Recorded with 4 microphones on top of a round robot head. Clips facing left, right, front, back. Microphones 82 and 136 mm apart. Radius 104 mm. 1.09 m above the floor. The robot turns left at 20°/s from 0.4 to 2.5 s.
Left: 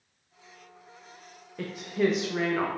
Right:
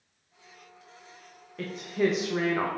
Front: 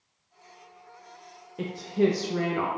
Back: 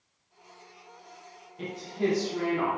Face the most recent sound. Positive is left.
turn(degrees=-10)